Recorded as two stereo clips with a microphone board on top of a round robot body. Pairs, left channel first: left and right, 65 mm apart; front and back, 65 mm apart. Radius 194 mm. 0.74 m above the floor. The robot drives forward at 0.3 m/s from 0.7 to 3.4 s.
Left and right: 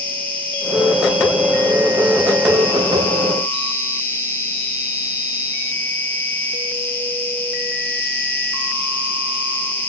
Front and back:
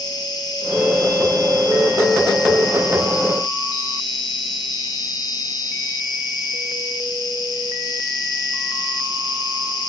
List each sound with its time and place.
0.0 s an insect: 25° left, 7 m